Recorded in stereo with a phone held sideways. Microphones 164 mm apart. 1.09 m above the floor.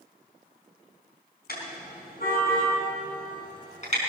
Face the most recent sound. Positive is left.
turn(degrees=45)  # may be behind; listen again after turning